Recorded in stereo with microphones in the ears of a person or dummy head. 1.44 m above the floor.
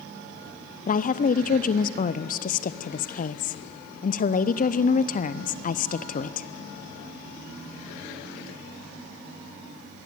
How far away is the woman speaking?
About 0.7 m.